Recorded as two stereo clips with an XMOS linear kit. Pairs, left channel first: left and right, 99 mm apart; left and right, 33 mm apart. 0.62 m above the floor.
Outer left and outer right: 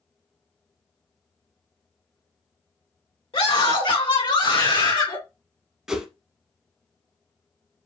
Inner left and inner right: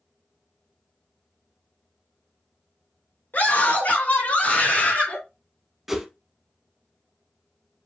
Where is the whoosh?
5° right (ahead or behind), 0.9 m.